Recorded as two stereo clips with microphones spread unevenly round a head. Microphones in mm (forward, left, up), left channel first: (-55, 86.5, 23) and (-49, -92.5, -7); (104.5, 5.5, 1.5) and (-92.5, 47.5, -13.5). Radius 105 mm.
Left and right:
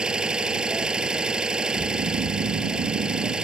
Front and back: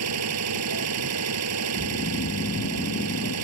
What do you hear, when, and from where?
0.0 s an engine running: 175° right
1.7 s snoring: 65° right